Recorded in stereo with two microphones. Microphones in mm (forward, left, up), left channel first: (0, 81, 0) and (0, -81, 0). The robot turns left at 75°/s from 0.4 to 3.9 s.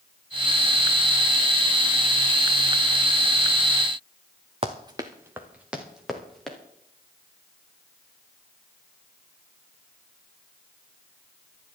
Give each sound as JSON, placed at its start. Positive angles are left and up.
{"t": 4.6, "sound": "running footsteps", "side_deg": -35, "distance_m": 1.5}